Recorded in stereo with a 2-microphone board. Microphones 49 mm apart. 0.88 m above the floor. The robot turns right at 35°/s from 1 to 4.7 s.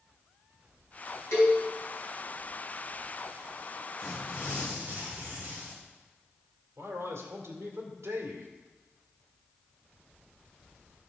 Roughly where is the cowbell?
Left.